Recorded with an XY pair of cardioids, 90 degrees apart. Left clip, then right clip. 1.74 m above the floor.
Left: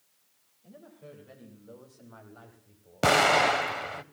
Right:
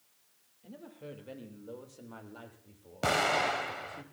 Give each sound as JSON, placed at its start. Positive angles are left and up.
{"t": 0.6, "sound": "a woman speaking", "azimuth_deg": -65, "distance_m": 6.5}
{"t": 3.0, "sound": "an explosion", "azimuth_deg": 55, "distance_m": 0.7}